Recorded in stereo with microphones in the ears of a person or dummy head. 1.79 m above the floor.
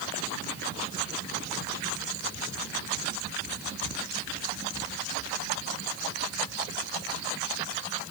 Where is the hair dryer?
No hair dryer in this recording.